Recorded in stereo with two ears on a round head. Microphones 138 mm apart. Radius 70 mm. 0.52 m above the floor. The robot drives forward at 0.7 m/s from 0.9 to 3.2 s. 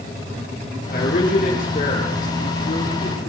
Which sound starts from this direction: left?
A man speaking, at 0.9 s.